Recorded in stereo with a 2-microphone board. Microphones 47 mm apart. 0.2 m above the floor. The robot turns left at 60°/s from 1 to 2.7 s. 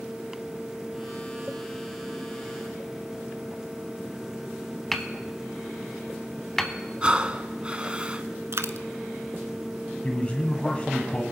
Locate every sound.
4.9 s hammering: 10° left (ahead or behind), 0.8 m
7.0 s breathing: 25° right (ahead or behind), 0.7 m
8.5 s a dropped coin: 70° right (ahead or behind), 0.7 m
10.0 s a man speaking: 30° left (ahead or behind), 1.2 m